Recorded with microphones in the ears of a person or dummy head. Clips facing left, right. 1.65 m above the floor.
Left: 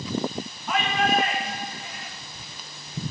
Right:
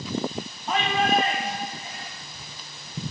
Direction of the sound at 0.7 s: 30° right (ahead or behind).